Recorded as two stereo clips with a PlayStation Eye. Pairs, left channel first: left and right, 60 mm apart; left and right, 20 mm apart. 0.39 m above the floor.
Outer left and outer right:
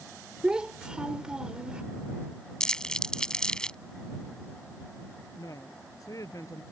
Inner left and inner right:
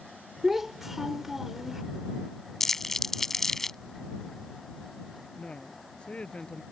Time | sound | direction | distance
0.4 | a child speaking | 15° right (ahead or behind) | ?
2.6 | crumpling | 10° left (ahead or behind) | ?
5.4 | a woman speaking | 70° left (ahead or behind) | ?